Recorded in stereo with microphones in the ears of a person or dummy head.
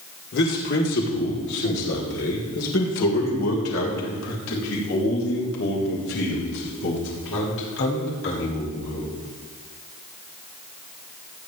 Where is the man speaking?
55° left (ahead or behind), 2.5 m; by 9.1 s 70° left (ahead or behind), 7 m.